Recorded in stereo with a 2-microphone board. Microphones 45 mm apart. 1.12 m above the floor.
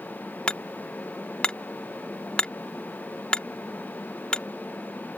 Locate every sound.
0.5 s hammering: 25° left (ahead or behind)